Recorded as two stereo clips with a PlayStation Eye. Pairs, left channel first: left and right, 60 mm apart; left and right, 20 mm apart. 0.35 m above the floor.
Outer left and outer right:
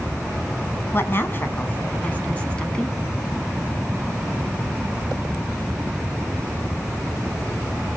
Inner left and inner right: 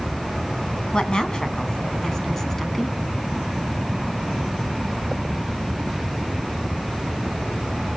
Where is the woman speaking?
45° left (ahead or behind), 3 m; by 3.0 s 15° left (ahead or behind), 3 m.